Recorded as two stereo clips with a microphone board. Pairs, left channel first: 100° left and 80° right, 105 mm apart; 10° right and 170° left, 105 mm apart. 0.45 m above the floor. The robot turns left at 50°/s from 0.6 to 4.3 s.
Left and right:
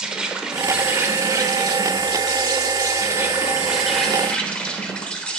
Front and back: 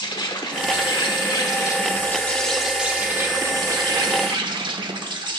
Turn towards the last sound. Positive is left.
turn(degrees=175)